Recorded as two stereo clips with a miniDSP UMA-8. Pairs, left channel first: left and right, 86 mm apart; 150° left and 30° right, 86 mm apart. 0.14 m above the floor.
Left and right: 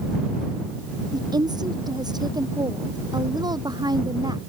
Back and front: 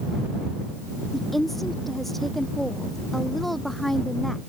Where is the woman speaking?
120° right.